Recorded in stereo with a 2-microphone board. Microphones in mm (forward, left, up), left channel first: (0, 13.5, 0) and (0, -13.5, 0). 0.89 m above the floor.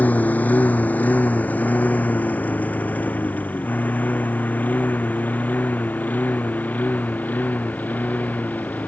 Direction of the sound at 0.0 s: 70° left (ahead or behind).